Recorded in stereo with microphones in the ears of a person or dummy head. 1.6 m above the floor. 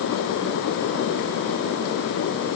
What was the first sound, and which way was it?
Only background noise.